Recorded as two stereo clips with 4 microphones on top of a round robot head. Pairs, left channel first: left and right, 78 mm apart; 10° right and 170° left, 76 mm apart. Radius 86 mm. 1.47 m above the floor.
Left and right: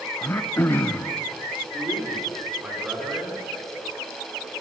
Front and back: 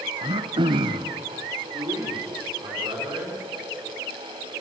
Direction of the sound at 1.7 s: 165° right.